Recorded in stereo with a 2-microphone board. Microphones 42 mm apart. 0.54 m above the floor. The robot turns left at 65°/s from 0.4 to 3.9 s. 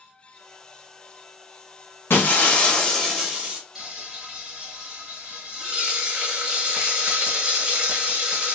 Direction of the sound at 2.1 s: 65° left.